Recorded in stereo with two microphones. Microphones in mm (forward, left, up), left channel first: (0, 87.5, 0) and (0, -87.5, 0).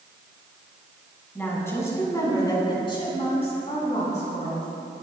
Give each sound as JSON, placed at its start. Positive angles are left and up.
{"t": 1.4, "sound": "a woman speaking", "side_deg": 10, "distance_m": 4.5}